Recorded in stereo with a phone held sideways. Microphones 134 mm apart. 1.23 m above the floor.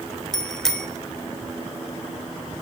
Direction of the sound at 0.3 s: 5° left (ahead or behind).